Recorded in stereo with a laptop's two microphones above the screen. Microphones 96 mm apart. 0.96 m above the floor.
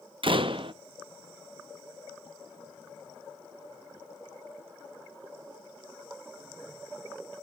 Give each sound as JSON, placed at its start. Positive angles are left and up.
{"t": 0.2, "sound": "a door slam", "side_deg": -65, "distance_m": 0.5}